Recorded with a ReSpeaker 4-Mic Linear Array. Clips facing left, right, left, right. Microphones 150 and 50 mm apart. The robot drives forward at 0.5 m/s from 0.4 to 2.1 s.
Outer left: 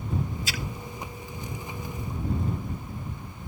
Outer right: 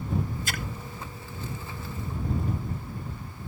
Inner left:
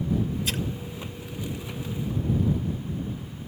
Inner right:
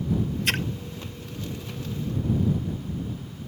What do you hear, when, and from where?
0.5 s a splash: 55° right (ahead or behind)